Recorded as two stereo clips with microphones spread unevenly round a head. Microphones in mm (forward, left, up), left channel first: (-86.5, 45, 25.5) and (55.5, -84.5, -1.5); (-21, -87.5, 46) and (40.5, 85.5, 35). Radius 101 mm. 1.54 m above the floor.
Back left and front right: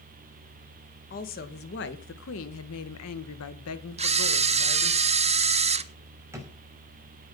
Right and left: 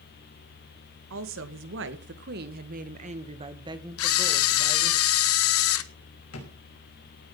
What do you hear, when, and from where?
1.1 s a woman speaking: 85° left, 1.9 m; by 5.0 s 160° left, 2 m
4.0 s a camera shutter: 100° right, 1.0 m
6.3 s a drawer: 120° right, 6 m